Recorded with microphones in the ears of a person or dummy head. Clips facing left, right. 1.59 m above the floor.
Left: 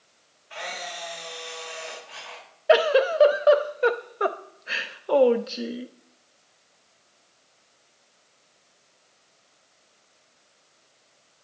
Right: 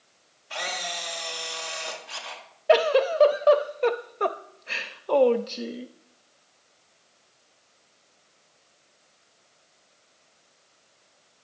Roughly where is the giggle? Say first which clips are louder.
Left 1 dB; centre.